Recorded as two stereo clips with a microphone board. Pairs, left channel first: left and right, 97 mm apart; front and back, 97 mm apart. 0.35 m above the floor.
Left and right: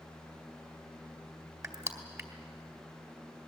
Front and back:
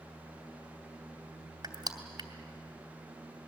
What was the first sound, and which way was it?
Crushing, 145° right.